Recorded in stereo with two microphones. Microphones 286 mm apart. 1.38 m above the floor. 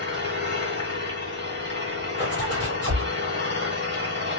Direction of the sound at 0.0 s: 40° right (ahead or behind).